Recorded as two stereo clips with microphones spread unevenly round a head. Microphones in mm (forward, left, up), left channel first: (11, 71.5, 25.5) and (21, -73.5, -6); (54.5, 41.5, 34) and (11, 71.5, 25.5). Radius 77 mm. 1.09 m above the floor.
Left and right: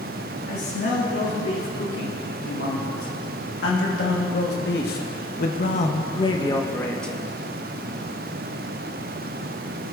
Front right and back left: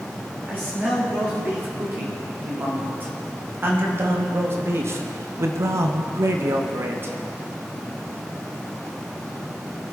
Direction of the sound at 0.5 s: 90° left.